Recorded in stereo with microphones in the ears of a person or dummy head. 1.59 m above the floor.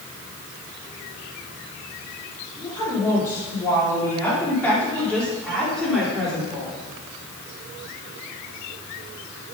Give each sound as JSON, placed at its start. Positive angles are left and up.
{"t": 2.6, "sound": "a woman speaking", "side_deg": 20, "distance_m": 4.5}